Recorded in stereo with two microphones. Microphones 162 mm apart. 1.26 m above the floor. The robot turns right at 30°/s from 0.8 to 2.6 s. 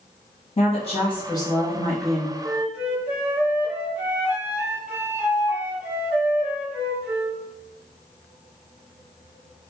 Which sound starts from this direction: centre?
A flute, at 2.4 s.